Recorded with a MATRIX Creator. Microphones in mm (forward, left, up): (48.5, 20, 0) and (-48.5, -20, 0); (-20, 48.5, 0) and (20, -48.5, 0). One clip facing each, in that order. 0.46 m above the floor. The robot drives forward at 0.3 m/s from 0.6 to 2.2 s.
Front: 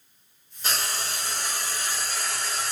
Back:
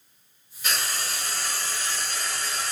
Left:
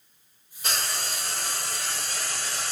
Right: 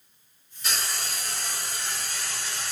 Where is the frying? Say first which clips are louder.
Even, left 1 dB; 75° left, 0.9 m; by 2.7 s 110° left, 0.9 m.